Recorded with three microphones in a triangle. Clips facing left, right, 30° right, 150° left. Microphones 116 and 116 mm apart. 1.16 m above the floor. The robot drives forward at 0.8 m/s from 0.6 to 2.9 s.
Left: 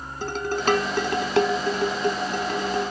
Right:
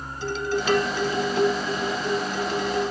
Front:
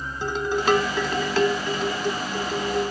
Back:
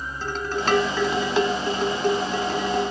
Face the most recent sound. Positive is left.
turn(degrees=140)